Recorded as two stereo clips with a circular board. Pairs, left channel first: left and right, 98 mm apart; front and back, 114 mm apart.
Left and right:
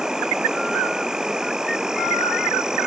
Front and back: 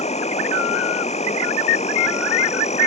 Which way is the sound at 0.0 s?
5° right.